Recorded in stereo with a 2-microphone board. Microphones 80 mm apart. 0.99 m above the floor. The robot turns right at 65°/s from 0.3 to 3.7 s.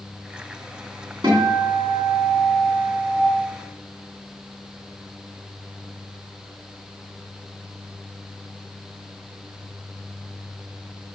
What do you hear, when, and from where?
1.2 s a guitar: 80° right, 3.5 m; by 3.2 s 50° left, 3.5 m